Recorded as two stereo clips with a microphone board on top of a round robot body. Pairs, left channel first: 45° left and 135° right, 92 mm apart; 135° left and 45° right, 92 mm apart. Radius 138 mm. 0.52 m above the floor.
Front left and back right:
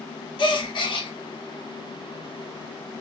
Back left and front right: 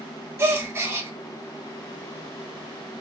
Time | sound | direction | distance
0.4 | a gasp | 15° left | 0.9 m